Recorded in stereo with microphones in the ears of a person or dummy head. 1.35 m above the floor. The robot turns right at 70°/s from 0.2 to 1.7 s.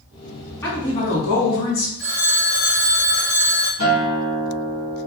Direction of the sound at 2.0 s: 55° left (ahead or behind).